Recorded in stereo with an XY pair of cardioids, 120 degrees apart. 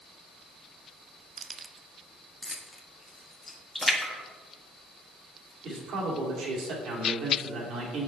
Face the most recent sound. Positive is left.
turn(degrees=-60)